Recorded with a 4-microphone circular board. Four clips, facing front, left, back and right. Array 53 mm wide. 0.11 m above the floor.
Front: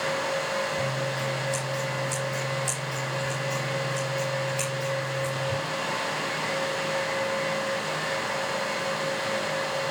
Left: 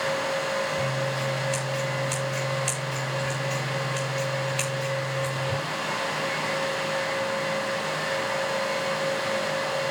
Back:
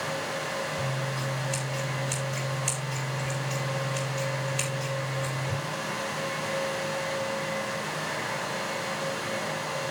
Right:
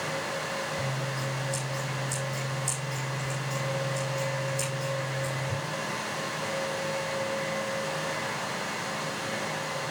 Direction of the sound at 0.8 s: 105° left.